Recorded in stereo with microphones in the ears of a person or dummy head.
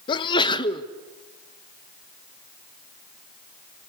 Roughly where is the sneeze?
Left.